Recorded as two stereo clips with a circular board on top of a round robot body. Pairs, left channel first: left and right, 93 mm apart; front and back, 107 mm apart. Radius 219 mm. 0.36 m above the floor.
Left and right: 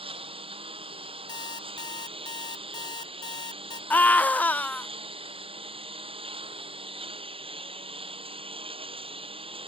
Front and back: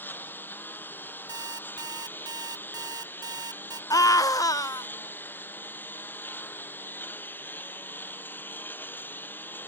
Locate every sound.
0.0 s a lawn mower: 70° right
1.3 s an alarm clock: 130° left
3.9 s a scream: 25° left